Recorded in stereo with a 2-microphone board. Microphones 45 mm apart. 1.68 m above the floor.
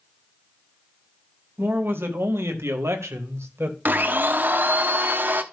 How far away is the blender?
About 0.9 m.